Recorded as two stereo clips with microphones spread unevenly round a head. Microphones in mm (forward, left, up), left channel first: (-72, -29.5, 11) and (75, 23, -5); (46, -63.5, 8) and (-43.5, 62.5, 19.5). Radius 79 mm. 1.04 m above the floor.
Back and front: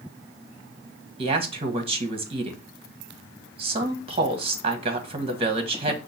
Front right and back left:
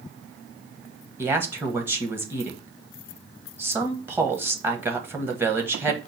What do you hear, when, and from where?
1.2 s a man speaking: 50° left, 1.1 m